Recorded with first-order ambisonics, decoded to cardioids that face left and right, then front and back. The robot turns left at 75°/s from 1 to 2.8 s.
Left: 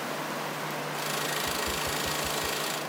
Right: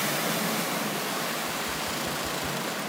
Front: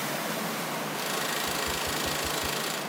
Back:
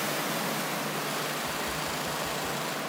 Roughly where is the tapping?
Left.